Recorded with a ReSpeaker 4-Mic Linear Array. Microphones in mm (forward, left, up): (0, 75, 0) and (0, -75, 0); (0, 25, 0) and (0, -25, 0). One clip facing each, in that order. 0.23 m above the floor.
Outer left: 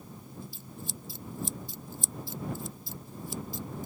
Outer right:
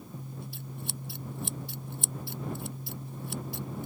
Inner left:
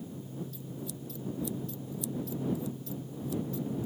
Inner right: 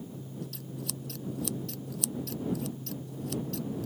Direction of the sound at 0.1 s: 65° right (ahead or behind).